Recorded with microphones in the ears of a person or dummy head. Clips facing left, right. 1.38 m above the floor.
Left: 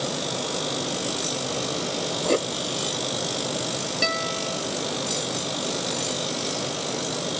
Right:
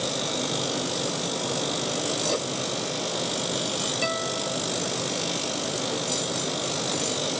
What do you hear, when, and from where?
2.2 s writing: 50° left (ahead or behind)
4.0 s a guitar: 25° left (ahead or behind)